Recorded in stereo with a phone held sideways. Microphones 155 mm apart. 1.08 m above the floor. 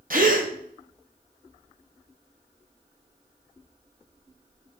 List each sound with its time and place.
0.1 s a gasp: 60° right (ahead or behind), 1.0 m